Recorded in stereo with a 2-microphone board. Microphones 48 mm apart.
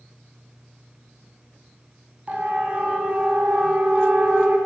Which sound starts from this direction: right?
A siren, at 2.3 s.